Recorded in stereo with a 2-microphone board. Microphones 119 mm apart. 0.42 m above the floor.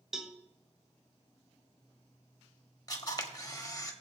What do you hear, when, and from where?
0.1 s a cowbell: 5° right (ahead or behind), 0.9 m
2.9 s a camera shutter: 30° left (ahead or behind), 1.3 m